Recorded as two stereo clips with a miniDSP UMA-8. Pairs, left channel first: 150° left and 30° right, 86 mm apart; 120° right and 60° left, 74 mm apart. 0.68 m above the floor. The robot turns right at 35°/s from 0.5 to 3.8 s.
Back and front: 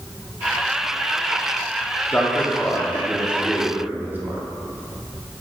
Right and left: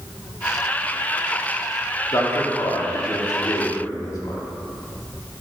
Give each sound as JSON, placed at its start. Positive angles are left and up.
{"t": 2.1, "sound": "a man speaking", "azimuth_deg": -150, "distance_m": 1.3}